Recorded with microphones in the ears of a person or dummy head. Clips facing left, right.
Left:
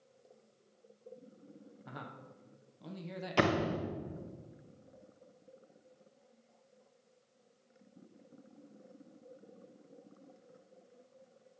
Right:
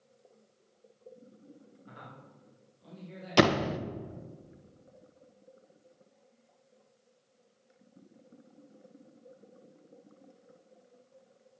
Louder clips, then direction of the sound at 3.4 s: Right 6 dB; 55° right (ahead or behind).